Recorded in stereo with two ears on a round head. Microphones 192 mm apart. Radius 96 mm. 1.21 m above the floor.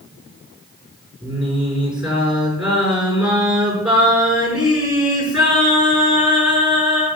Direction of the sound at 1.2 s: 5° right (ahead or behind).